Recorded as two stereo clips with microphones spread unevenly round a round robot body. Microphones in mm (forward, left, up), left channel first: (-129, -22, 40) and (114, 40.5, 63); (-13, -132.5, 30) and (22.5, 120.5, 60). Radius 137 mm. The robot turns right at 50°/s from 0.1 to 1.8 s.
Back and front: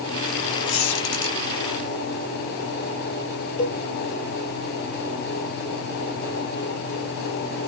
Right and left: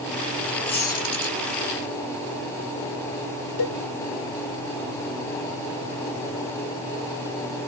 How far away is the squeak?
About 2 m.